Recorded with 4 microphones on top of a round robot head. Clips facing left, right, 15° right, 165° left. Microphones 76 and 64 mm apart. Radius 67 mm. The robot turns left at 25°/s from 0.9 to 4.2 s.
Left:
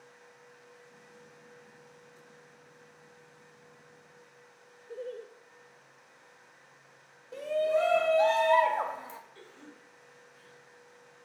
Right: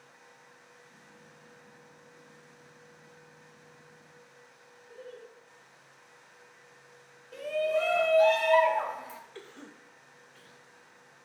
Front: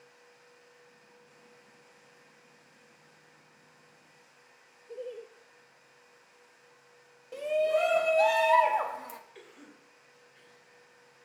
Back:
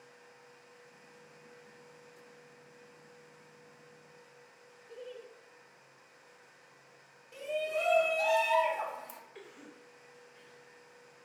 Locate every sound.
4.9 s laughter: 45° left, 0.6 m
7.3 s a shout: 25° left, 1.2 m
9.3 s a cough: 110° right, 1.9 m